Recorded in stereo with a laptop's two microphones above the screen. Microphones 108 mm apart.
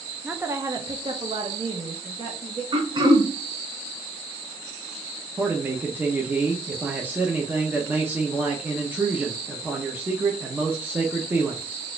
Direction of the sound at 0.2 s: 10° right (ahead or behind).